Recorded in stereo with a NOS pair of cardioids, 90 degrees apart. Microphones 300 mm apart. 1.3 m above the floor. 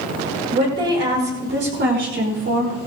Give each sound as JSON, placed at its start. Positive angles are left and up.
{"t": 0.5, "sound": "a woman speaking", "azimuth_deg": -35, "distance_m": 5.5}